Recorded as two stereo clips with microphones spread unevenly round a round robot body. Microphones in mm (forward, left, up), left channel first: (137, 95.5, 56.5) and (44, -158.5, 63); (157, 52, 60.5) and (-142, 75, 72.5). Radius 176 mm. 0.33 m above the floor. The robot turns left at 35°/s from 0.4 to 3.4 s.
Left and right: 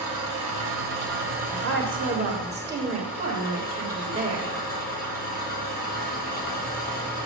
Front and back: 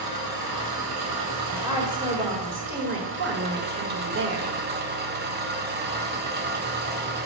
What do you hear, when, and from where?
0.0 s an engine running: 130° right, 1.2 m; by 7.3 s 125° left, 1.2 m
1.5 s a woman speaking: 100° right, 1.8 m; by 4.5 s 165° right, 1.8 m